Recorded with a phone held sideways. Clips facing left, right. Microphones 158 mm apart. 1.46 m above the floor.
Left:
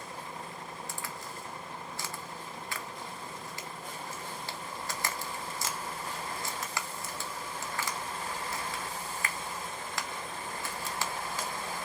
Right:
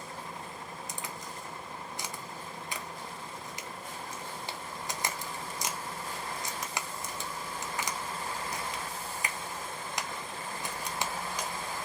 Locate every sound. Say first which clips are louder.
0.9 s a crack: even; 20° right (ahead or behind), 0.6 m